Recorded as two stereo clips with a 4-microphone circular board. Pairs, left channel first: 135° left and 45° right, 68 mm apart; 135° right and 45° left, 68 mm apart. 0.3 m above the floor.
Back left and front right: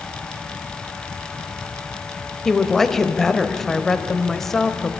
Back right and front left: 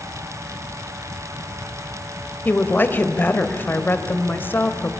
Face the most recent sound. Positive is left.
turn(degrees=-145)